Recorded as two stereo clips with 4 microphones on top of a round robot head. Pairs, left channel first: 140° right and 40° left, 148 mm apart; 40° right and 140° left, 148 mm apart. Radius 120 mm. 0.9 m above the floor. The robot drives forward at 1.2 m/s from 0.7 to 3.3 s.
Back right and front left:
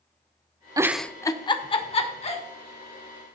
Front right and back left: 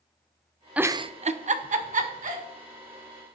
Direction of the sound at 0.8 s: 70° left.